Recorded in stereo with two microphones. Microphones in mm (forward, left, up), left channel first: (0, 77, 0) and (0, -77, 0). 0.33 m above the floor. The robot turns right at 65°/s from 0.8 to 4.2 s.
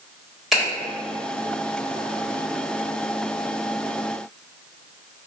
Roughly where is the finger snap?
Centre.